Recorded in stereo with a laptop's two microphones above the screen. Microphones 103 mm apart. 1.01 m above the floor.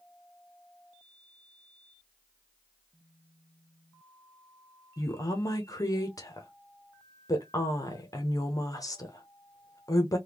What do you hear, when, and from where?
5.0 s a woman speaking: 35° left (ahead or behind), 0.8 m